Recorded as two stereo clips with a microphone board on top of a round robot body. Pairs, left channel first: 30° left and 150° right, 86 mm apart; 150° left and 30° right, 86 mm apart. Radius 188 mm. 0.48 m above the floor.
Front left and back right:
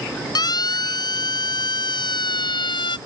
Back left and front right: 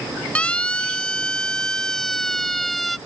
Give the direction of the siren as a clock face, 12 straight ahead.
10 o'clock.